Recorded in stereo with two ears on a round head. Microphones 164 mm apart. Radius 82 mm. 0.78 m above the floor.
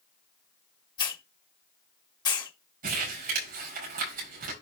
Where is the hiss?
25° left (ahead or behind), 1.3 m.